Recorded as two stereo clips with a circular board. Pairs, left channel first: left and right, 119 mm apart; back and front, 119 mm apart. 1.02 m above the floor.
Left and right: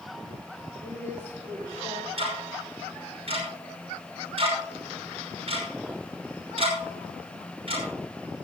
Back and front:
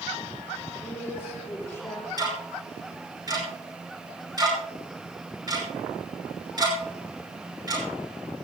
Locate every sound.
0.8 s a woman speaking: 105° right, 5.5 m; by 2.1 s 110° right, 6 m
2.2 s ticking: 55° right, 5.5 m